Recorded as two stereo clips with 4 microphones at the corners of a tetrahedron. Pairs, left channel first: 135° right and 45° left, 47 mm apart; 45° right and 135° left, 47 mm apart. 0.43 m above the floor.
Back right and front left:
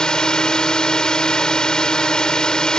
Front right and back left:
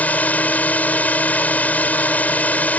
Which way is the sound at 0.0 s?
70° right.